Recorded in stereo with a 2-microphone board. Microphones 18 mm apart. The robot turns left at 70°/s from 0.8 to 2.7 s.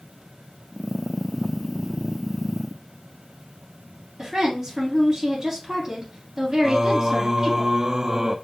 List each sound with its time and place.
4.2 s a woman speaking: 30° right (ahead or behind), 3 m
6.6 s singing: 35° right (ahead or behind), 0.5 m